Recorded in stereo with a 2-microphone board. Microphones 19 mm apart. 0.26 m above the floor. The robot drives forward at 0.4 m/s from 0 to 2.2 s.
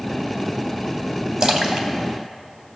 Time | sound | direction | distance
1.4 | a splash | 35° right (ahead or behind) | 0.8 m